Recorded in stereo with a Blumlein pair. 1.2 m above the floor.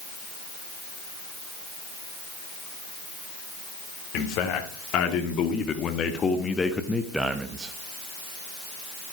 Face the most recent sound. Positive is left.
turn(degrees=-20)